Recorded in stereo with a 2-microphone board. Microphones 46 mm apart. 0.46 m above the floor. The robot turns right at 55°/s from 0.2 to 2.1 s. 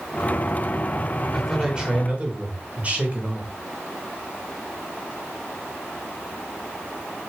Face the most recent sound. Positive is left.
turn(degrees=-140)